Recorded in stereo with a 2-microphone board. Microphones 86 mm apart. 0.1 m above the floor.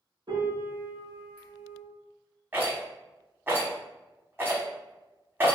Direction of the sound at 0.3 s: 50° right (ahead or behind).